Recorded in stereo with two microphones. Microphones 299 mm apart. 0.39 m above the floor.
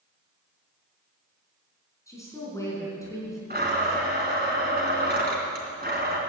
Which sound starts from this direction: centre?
A woman speaking, at 2.1 s.